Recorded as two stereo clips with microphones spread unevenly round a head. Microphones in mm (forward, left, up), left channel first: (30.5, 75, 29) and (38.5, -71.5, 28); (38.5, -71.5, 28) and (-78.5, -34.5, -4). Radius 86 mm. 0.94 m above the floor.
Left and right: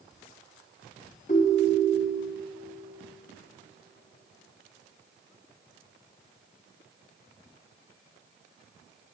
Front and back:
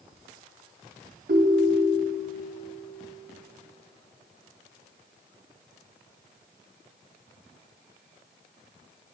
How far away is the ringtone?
About 0.6 m.